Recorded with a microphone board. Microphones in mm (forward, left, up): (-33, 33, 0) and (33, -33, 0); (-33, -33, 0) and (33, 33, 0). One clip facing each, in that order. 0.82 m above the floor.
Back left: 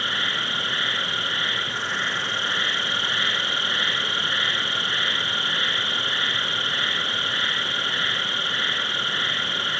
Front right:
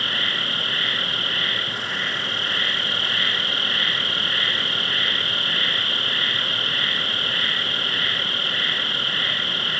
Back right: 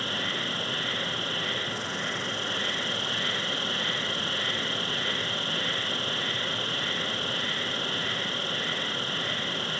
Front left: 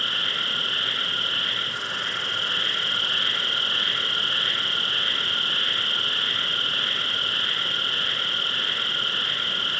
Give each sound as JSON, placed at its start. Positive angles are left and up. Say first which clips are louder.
{"t": 0.0, "sound": "an insect", "louder": "back left 1 dB, front left 1 dB", "azimuth_deg": 75, "distance_m": 3.0}